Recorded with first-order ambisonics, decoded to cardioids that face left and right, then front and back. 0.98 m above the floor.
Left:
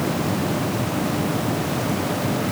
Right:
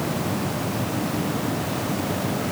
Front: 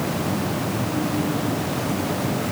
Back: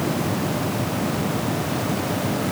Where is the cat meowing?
I don't hear a cat meowing.